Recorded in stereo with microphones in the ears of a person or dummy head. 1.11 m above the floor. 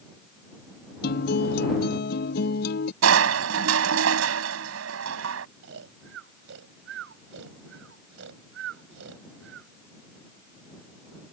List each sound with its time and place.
1.0 s a guitar: 55° left (ahead or behind)
3.0 s crushing: 75° right (ahead or behind)
5.6 s snoring: 75° right (ahead or behind)